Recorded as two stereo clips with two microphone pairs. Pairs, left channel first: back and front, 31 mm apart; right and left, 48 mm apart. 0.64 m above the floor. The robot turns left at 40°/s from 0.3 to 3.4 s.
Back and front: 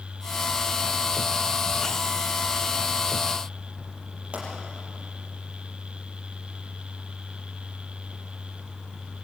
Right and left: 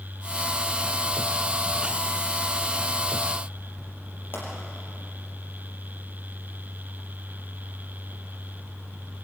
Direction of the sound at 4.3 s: 50° right.